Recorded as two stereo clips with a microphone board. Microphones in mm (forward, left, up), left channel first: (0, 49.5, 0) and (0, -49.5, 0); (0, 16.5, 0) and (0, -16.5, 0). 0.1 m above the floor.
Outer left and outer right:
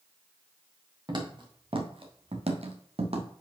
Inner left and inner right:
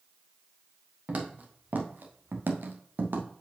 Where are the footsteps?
45° right (ahead or behind), 2.5 m; by 3.3 s 80° right, 1.7 m.